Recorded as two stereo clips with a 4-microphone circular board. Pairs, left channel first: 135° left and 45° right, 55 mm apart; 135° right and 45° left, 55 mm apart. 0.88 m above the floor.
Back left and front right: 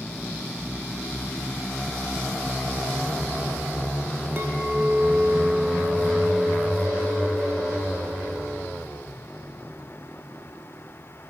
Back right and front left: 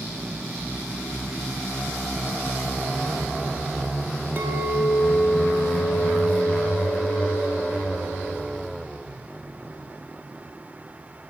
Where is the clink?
Straight ahead, 1.1 m.